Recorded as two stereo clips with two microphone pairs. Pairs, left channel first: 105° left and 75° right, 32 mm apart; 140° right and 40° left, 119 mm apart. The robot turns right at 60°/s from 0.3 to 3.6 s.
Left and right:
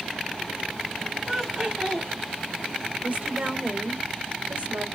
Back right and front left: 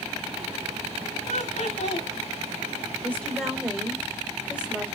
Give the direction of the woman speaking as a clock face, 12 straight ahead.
2 o'clock.